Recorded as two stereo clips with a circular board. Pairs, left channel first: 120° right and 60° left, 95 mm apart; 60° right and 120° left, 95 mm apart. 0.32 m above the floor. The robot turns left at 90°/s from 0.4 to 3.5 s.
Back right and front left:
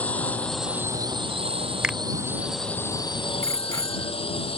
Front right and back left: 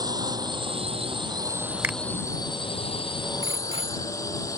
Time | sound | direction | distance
0.0 | a drone | 165° left | ?
1.8 | a finger snap | 125° left | ?
3.4 | a bicycle bell | 55° right | ?